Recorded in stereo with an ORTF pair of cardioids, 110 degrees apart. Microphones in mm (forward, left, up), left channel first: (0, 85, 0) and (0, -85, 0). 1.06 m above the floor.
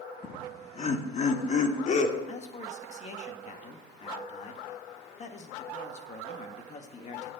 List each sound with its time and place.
0.2 s laughter: 35° left, 1.7 m; by 2.2 s 45° left, 3 m
2.3 s a man speaking: 45° left, 1.9 m